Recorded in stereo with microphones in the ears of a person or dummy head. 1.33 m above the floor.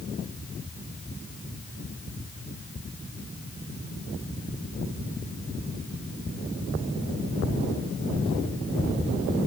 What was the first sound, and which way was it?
Only background noise.